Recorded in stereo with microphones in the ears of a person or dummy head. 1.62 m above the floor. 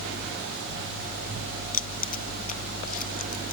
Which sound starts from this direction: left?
Keys jangling, at 1.7 s.